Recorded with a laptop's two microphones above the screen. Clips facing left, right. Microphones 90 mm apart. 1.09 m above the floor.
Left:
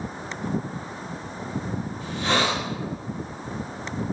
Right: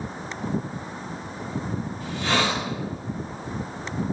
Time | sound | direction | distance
2.0 | a hiss | 35° left (ahead or behind) | 3 m